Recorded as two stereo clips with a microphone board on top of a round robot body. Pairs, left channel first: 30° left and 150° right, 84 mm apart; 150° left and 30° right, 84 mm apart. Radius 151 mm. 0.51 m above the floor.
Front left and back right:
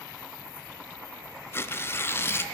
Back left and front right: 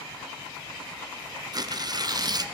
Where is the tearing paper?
20° right, 0.7 m.